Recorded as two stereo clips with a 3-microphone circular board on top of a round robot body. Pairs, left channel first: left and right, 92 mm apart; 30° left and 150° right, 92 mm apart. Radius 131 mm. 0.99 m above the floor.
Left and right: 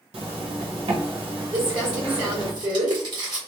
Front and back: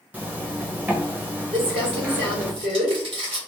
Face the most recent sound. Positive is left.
turn(degrees=-130)